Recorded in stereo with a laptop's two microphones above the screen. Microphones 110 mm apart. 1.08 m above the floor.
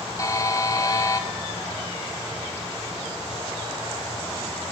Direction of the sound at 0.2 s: 30° left (ahead or behind).